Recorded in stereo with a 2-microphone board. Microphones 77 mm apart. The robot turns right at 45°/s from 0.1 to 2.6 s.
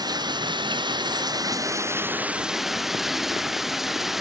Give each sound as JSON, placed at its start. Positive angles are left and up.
{"t": 0.0, "sound": "running water", "azimuth_deg": -115}